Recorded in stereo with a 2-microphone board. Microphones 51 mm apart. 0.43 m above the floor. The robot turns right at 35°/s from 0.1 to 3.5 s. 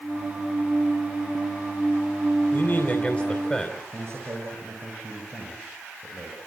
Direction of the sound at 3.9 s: 45° right (ahead or behind).